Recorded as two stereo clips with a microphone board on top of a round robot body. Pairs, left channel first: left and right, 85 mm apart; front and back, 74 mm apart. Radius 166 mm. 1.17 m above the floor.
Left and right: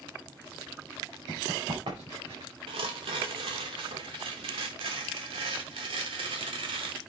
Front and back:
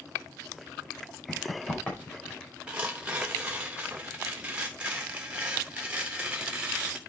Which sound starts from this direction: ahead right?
Running footsteps, at 1.3 s.